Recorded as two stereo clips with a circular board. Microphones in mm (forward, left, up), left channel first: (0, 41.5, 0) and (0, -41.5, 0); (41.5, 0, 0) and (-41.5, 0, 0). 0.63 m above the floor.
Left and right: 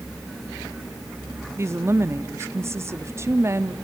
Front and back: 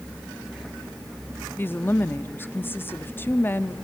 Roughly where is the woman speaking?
Ahead right.